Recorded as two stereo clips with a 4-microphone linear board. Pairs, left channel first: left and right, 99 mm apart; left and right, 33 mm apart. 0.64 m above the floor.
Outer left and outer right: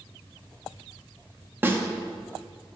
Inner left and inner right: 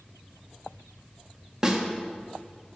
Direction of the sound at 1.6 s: 20° right (ahead or behind).